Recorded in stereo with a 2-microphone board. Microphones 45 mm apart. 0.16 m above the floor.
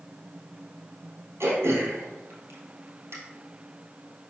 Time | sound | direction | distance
1.4 | throat clearing | 75° right (ahead or behind) | 2.5 m